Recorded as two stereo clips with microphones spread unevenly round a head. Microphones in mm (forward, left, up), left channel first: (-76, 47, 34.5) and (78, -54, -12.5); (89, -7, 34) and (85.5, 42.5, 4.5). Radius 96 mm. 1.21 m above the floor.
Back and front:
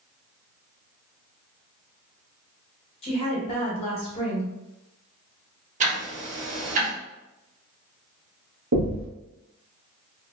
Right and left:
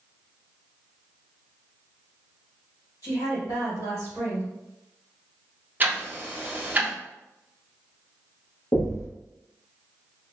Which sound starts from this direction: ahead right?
Knocking, at 8.7 s.